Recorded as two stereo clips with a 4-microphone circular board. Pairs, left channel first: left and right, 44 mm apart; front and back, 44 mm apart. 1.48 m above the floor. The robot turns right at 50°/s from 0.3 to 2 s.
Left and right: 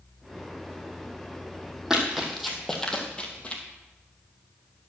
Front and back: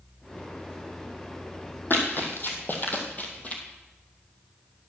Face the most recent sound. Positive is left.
turn(degrees=40)